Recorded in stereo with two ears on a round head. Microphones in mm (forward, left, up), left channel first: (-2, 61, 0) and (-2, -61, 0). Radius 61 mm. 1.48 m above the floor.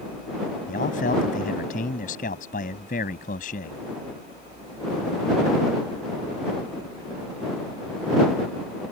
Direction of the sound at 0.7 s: 60° left (ahead or behind).